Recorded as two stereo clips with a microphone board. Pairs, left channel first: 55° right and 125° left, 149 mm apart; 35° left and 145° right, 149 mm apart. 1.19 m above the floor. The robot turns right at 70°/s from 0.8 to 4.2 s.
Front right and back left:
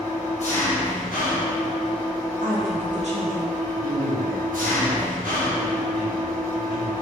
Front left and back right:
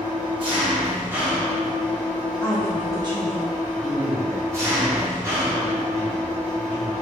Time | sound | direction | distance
0.0 | an engine running | 95° right | 1.2 m
2.4 | a woman speaking | 110° left | 1.3 m
3.8 | a man speaking | 115° left | 1.1 m